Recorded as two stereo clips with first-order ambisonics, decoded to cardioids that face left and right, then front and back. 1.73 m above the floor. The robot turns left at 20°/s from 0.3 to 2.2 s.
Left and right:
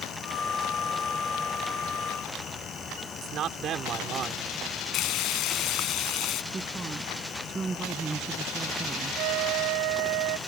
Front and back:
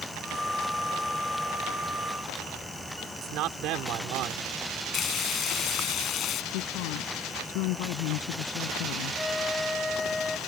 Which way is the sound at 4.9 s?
55° left.